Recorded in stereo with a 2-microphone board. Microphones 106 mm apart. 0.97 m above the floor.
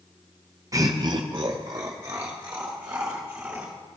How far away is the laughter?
About 0.6 m.